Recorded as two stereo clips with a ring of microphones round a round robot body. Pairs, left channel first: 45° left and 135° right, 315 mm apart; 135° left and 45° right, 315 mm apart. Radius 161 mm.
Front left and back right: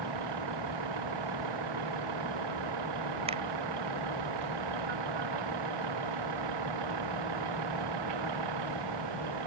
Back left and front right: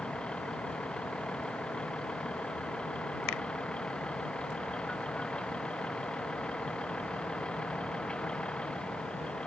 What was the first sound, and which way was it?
A vehicle, 140° right.